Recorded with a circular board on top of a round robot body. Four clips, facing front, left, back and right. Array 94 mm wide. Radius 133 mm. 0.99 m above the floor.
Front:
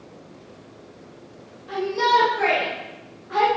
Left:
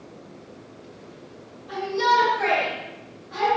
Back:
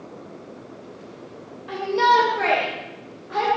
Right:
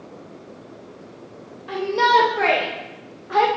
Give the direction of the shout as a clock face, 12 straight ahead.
4 o'clock.